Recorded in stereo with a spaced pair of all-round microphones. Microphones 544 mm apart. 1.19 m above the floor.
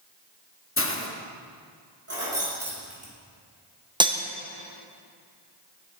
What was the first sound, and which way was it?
A hiss, 25° left (ahead or behind).